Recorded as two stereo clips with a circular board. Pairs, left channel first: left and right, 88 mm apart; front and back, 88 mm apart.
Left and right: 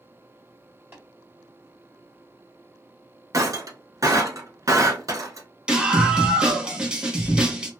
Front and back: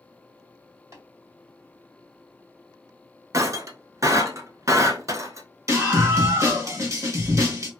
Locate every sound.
0.9 s tapping: 145° right, 1.7 m
3.3 s breaking glass: 135° right, 0.6 m
5.7 s a scream: 165° right, 1.0 m